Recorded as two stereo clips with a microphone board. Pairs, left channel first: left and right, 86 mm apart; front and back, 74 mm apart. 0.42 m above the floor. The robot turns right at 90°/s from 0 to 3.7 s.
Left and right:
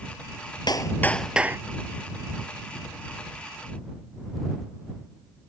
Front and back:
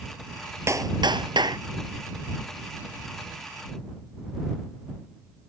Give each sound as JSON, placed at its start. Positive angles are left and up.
{"t": 0.7, "sound": "a clap", "azimuth_deg": 125}